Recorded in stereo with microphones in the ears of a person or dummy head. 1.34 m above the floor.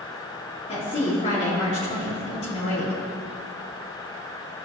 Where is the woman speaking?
30° left (ahead or behind), 3.5 m.